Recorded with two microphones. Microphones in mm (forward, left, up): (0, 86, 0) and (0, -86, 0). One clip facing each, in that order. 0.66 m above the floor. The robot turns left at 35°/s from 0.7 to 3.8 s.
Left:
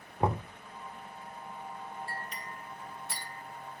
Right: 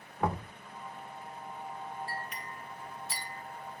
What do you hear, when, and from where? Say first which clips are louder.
0.2 s knocking: left 2 dB; 25° left (ahead or behind), 1.2 m
2.1 s a clink: right 1 dB; 30° left (ahead or behind), 1.9 m; by 3.4 s 70° left (ahead or behind), 1.9 m